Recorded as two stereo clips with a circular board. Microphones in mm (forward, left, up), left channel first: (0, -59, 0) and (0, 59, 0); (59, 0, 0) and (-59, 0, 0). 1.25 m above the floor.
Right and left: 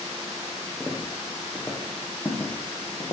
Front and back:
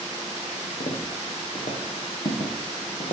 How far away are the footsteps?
About 2.5 m.